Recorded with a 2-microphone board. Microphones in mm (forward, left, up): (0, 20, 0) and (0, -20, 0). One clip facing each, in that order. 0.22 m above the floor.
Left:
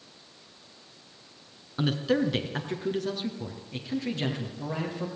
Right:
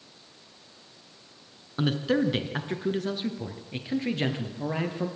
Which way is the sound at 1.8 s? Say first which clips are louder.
Right 1 dB; 5° right (ahead or behind).